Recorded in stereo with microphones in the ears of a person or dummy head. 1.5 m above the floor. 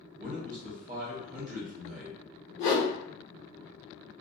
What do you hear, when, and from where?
0.2 s a man speaking: 45° right (ahead or behind), 0.8 m
2.6 s a whoosh: 40° left (ahead or behind), 0.9 m